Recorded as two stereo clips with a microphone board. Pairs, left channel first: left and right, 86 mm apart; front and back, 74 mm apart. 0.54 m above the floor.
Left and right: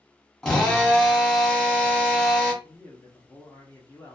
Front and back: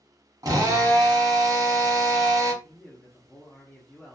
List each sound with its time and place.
0.4 s a drill: 170° left, 1.1 m
2.6 s a man speaking: 55° left, 0.7 m